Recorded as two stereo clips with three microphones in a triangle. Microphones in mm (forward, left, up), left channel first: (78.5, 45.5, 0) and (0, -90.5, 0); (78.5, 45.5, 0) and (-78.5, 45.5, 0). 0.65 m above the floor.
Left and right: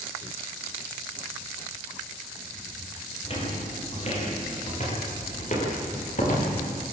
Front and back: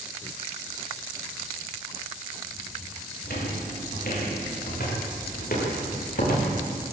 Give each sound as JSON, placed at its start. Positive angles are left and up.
{"t": 3.2, "sound": "footsteps", "azimuth_deg": 10, "distance_m": 7.0}